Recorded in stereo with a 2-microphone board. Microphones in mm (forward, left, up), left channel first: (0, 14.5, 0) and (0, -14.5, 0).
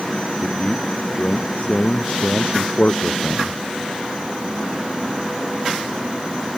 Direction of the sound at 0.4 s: 50° left (ahead or behind).